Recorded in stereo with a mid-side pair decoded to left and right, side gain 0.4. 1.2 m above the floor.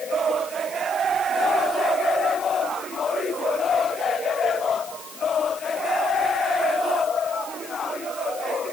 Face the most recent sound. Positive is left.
No sound to turn to.